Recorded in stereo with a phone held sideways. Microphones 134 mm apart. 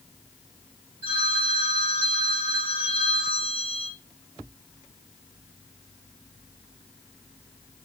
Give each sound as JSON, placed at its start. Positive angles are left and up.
{"t": 1.0, "sound": "a phone ringing", "side_deg": -15, "distance_m": 2.5}